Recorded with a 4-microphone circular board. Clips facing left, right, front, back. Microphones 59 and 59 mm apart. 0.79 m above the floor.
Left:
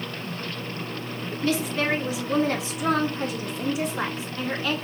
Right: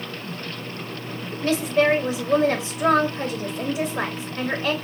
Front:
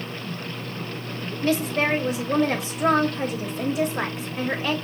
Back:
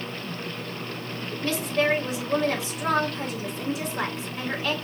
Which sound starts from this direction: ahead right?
A woman speaking, at 1.4 s.